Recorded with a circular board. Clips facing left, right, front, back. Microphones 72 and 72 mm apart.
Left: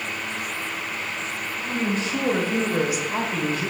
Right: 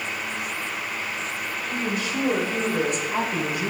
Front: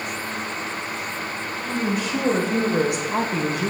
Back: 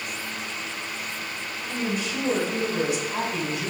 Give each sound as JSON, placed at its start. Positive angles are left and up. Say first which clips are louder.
{"t": 1.6, "sound": "a woman speaking", "louder": "left 3 dB, front 4 dB", "azimuth_deg": 35, "distance_m": 2.5}